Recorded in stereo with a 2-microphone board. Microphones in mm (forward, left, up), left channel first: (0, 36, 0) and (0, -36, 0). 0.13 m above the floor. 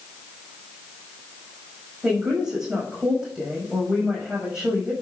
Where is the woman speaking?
10° right (ahead or behind), 6.5 m.